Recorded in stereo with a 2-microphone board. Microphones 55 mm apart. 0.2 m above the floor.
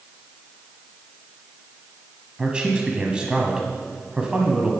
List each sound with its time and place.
2.4 s a man speaking: 20° right (ahead or behind), 1.1 m